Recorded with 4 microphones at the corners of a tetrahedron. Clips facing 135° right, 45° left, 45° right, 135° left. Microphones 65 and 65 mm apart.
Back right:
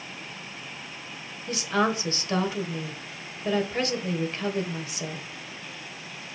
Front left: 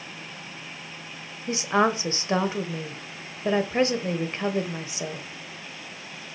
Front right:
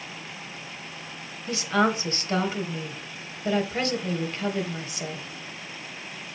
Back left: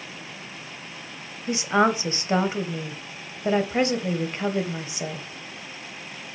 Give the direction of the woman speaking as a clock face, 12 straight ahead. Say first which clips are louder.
Front left 3 dB, back left 3 dB; 9 o'clock.